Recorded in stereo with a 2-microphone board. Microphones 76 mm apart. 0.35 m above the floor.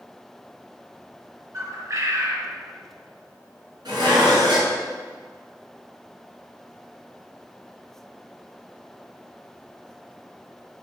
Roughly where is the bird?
Right.